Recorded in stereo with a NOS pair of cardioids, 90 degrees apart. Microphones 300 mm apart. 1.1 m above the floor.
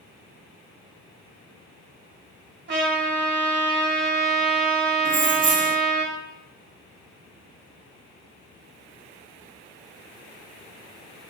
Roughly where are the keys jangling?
Ahead right.